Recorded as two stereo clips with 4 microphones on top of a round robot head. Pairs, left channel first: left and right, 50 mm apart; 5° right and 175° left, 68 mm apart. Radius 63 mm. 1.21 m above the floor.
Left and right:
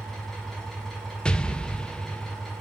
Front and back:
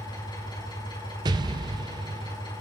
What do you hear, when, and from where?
0.0 s an engine running: 10° left, 7.5 m
1.2 s an explosion: 160° left, 0.6 m